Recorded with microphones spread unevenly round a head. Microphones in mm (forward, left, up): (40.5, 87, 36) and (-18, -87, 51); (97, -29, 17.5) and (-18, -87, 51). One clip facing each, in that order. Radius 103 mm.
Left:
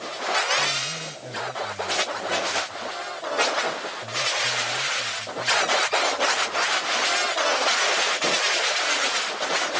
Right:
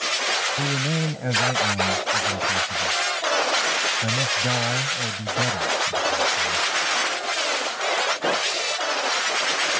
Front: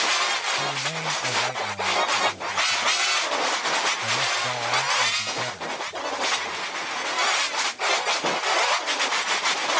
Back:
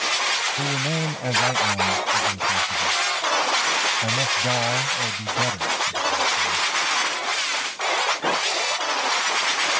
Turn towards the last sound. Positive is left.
turn(degrees=-110)